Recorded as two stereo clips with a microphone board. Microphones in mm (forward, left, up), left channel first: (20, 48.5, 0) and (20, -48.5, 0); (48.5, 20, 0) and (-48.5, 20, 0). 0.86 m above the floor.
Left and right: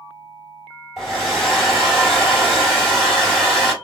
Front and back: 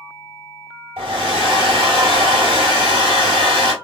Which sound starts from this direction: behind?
A hair dryer, at 1.0 s.